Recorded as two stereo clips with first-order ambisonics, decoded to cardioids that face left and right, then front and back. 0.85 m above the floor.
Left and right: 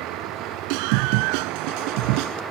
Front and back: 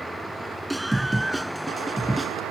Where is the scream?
95° right.